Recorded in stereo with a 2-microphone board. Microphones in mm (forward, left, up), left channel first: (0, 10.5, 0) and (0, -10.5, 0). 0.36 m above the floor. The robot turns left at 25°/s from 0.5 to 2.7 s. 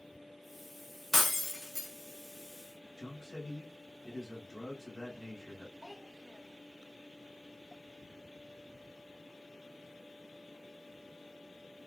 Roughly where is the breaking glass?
Centre.